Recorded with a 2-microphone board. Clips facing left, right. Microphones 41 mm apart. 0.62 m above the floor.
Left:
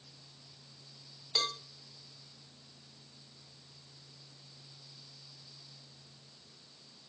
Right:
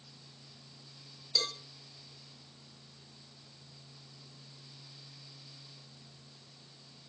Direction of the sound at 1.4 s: 25° left (ahead or behind).